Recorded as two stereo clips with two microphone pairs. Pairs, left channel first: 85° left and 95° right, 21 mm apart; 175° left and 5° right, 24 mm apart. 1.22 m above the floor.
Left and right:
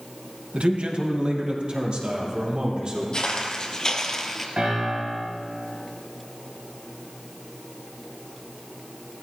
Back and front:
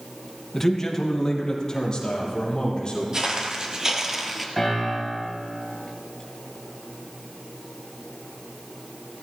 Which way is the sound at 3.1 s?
45° left.